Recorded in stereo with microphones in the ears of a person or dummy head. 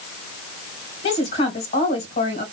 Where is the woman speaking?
35° left (ahead or behind), 1.8 m.